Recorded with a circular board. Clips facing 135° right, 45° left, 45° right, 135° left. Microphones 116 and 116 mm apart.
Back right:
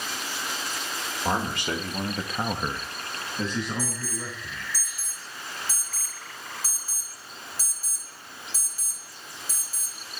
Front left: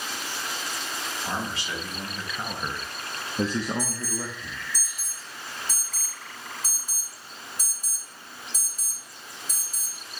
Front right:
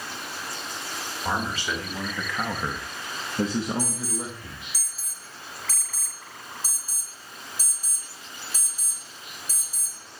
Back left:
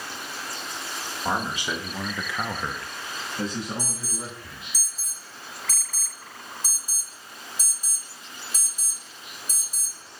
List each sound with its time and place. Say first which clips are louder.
1.2 s a man speaking: back right 6 dB, back left 1 dB; 155° right, 1.4 m; by 4.7 s 15° left, 1.7 m
3.8 s an alarm: front left 1 dB, front right 4 dB; 85° left, 1.1 m